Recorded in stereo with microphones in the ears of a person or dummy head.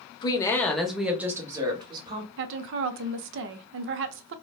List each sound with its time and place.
0.2 s a woman speaking: 30° left (ahead or behind), 0.7 m; by 2.3 s 25° right (ahead or behind), 1.3 m
2.4 s a woman speaking: 65° right (ahead or behind), 0.5 m